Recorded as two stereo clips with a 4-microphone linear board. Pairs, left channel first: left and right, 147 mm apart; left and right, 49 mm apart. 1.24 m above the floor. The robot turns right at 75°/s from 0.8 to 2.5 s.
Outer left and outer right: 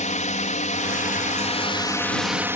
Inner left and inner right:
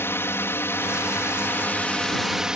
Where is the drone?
70° left; by 2.6 s 160° right.